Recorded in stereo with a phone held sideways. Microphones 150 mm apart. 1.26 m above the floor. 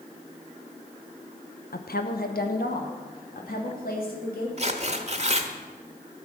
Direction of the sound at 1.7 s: 80° left.